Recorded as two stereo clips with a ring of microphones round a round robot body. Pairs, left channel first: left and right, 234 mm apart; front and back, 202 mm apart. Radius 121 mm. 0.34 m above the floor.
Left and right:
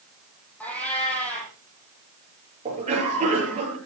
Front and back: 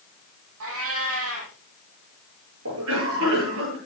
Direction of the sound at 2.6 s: 155° right.